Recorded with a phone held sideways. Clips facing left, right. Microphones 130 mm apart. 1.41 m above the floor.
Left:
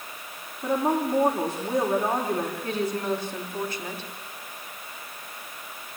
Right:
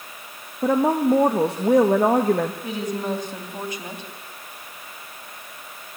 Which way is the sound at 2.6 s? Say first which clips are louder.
Even; 15° right (ahead or behind).